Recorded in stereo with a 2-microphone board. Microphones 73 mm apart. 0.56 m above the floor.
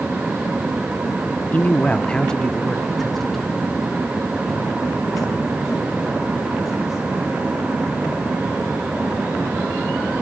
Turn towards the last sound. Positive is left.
turn(degrees=-5)  # may be behind; listen again after turning